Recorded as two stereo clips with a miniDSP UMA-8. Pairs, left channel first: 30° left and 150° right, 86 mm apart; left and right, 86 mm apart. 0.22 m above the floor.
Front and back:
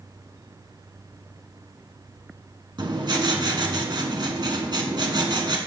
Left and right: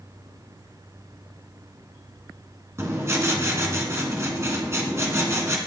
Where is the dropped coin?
No dropped coin in this recording.